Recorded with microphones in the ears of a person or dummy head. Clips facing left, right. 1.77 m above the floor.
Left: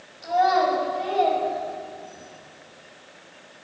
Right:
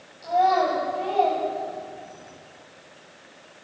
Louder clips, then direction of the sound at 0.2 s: Even; 15° left (ahead or behind).